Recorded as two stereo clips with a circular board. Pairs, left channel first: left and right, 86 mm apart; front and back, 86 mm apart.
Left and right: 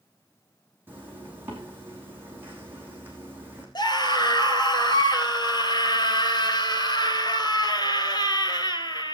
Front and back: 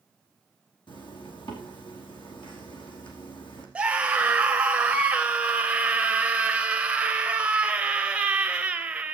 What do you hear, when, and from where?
0.9 s a zipper: 25° right, 5 m
3.8 s a scream: 105° left, 2.5 m